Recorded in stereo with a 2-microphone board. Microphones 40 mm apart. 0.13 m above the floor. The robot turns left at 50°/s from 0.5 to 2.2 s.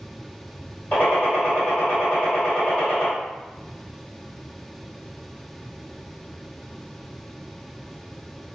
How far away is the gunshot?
About 1.9 m.